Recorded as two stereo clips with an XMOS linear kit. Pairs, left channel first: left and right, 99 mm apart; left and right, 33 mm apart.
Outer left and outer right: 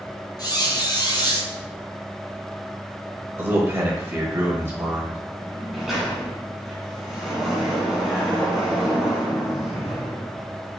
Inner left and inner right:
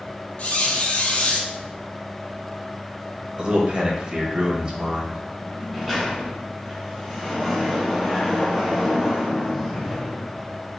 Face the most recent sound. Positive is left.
turn(degrees=0)  # may be behind; listen again after turning